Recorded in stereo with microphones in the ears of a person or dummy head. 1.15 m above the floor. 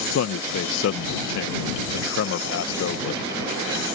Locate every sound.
0.1 s a man speaking: 70° left (ahead or behind)